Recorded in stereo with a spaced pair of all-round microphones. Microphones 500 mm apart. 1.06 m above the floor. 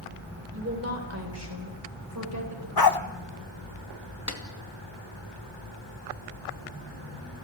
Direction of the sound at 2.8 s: 45° left (ahead or behind).